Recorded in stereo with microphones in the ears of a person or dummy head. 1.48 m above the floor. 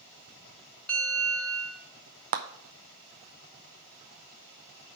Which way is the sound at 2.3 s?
35° right (ahead or behind).